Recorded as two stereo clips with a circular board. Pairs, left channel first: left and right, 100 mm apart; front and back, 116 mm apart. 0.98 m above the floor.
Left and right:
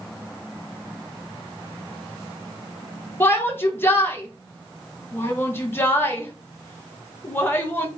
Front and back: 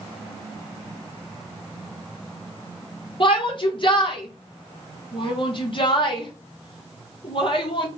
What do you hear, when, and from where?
3.2 s a shout: 30° left, 1.2 m